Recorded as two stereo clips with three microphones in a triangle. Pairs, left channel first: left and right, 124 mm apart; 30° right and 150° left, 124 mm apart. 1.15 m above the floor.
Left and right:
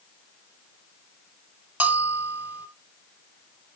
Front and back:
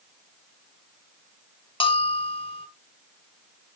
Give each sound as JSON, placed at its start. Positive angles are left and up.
{"t": 1.8, "sound": "a bell", "azimuth_deg": -15, "distance_m": 1.4}